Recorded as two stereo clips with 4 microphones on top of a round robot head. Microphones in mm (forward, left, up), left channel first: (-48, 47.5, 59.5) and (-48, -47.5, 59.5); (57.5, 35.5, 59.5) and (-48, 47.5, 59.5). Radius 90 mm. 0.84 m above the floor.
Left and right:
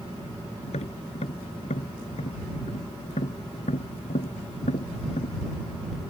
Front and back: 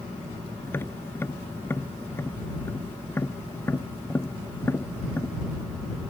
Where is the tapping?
65° left.